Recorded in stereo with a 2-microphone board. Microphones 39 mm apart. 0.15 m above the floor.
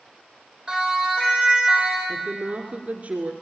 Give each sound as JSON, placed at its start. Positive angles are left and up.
{"t": 0.7, "sound": "a siren", "side_deg": -10, "distance_m": 6.5}
{"t": 2.1, "sound": "a woman speaking", "side_deg": -40, "distance_m": 2.0}